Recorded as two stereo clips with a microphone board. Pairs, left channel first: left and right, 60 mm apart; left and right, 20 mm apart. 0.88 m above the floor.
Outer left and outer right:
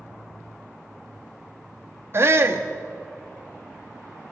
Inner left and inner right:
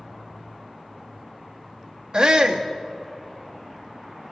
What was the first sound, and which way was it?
A shout, 45° right (ahead or behind).